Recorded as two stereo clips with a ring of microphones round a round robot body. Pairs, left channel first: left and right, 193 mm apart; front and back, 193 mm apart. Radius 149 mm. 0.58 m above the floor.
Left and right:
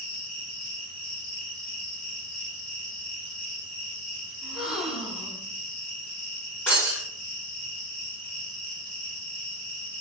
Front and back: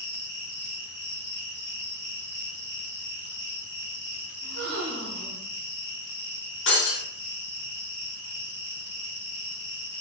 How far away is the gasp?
About 0.9 m.